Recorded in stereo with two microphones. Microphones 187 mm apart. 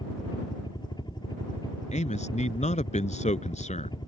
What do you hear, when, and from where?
0.0 s a helicopter: 25° left (ahead or behind)
1.9 s a man speaking: 40° left (ahead or behind)